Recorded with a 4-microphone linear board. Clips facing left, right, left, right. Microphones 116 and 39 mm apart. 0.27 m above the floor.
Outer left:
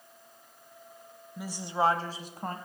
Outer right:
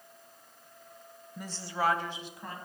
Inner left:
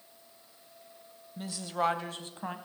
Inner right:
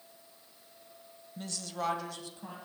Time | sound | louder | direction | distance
1.4 | a woman speaking | outer left 4 dB, inner left 5 dB | 5° left (ahead or behind) | 0.9 m